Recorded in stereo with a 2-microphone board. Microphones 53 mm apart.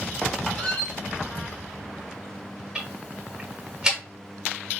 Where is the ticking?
15° right (ahead or behind), 1.2 m.